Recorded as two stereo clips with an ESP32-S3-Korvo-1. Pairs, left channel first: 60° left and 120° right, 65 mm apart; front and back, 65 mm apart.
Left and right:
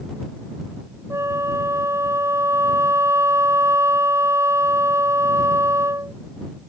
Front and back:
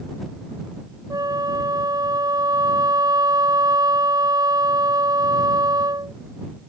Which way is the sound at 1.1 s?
165° right.